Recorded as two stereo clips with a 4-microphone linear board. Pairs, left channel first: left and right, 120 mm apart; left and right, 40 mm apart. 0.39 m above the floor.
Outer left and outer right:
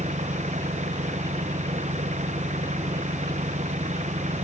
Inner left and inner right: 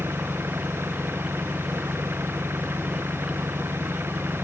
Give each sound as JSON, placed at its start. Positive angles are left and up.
{"t": 0.0, "sound": "an engine running", "side_deg": -80}